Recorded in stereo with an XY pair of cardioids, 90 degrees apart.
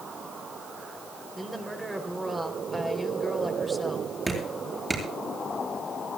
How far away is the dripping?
About 8.5 m.